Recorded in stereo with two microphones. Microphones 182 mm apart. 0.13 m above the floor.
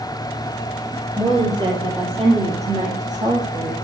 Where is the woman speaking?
15° right (ahead or behind), 3 m; by 3.7 s 45° right (ahead or behind), 4.5 m.